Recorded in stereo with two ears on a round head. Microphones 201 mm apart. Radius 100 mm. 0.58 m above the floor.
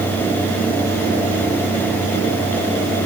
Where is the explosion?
No explosion in this recording.